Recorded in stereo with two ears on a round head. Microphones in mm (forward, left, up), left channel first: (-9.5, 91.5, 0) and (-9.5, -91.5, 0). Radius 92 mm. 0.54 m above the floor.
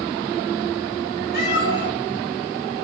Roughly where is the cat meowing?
Left.